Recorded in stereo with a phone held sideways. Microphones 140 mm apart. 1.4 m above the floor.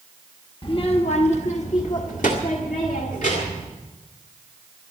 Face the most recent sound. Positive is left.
turn(degrees=75)  # may be behind; listen again after turning